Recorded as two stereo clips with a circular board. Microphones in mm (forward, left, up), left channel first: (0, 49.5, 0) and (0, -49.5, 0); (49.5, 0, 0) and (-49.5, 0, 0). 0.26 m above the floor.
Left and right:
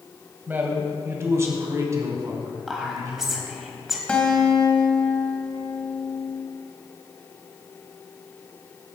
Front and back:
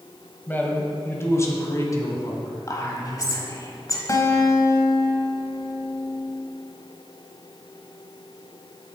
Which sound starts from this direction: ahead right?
A man speaking, at 0.5 s.